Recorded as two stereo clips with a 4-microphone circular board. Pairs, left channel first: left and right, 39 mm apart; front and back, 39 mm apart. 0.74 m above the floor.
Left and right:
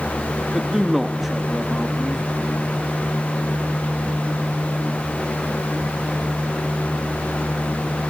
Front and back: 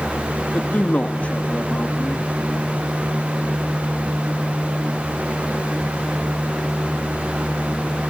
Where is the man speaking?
10° right, 1.1 m.